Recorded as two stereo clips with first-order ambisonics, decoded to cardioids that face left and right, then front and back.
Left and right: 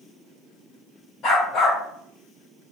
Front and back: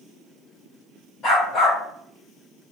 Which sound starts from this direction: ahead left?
A dog barking, at 1.2 s.